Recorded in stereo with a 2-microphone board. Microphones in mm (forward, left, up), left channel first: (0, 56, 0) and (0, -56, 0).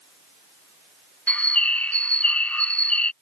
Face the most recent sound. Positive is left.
turn(degrees=10)  # may be behind; listen again after turning